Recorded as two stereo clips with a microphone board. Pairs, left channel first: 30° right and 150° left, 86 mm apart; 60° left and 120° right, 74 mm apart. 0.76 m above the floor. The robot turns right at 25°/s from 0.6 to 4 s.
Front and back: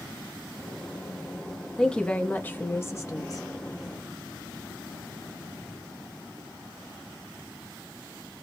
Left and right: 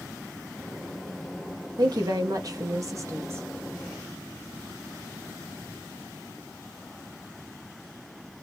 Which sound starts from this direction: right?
A woman speaking, at 1.8 s.